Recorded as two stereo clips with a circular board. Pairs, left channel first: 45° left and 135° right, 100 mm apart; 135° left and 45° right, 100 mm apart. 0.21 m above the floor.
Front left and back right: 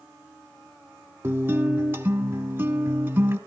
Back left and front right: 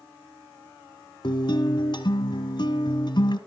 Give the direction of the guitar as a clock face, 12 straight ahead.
7 o'clock.